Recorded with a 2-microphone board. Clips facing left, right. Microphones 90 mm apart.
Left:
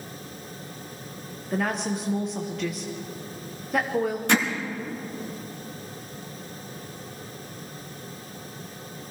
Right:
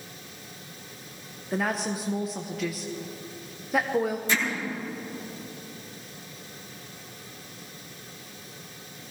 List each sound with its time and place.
1.5 s a woman speaking: centre (ahead or behind), 0.7 m
4.3 s hammering: 70° left (ahead or behind), 1.6 m